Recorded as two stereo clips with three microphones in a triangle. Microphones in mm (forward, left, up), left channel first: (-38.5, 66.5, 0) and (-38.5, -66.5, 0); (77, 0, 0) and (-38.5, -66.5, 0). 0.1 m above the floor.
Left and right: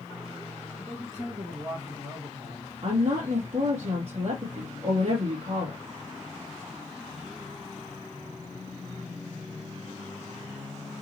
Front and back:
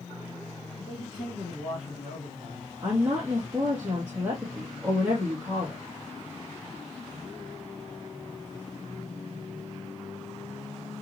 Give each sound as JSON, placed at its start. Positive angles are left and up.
{"t": 0.8, "sound": "a man speaking", "azimuth_deg": -30, "distance_m": 3.0}
{"t": 2.8, "sound": "a woman speaking", "azimuth_deg": -70, "distance_m": 2.5}